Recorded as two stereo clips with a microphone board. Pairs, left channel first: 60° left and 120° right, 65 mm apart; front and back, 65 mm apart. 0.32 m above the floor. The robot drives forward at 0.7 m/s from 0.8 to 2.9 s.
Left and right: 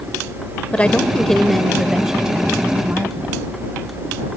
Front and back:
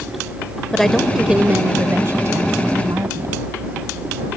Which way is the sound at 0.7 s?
70° left.